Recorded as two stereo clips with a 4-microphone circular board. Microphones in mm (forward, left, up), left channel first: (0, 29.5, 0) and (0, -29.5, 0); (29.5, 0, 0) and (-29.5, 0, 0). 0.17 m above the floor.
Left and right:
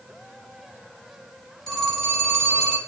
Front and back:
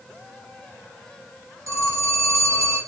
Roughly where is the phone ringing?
Behind.